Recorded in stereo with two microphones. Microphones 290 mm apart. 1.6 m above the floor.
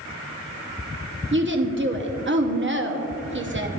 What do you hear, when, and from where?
1.3 s a woman speaking: 40° right (ahead or behind), 0.8 m